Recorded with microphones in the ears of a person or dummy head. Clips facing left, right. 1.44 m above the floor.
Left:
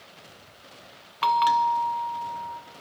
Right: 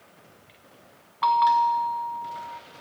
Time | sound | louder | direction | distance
1.2 | a bell | right 1 dB | 35° left (ahead or behind) | 0.6 m